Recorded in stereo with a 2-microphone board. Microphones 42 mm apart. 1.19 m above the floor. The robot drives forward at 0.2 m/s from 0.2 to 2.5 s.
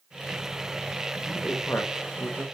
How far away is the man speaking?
About 1.3 m.